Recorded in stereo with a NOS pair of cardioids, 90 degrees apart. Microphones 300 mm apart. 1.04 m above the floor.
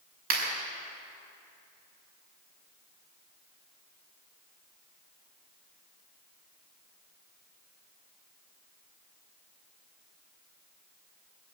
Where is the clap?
55° right, 6 m.